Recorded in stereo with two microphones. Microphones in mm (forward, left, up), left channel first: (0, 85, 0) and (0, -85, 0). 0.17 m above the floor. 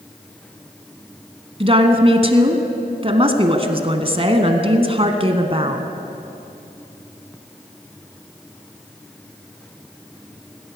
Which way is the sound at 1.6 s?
35° right (ahead or behind).